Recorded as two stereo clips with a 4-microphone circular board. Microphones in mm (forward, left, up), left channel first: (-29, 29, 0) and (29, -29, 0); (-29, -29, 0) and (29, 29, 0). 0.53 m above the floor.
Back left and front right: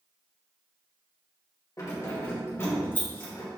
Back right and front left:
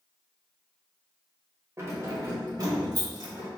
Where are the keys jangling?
95° left, 1.4 m; by 3.5 s 70° left, 2 m.